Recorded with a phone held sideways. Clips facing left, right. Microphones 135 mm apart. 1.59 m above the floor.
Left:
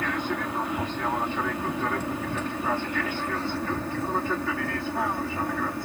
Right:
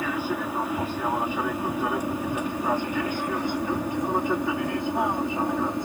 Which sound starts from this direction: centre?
An aircraft, at 0.0 s.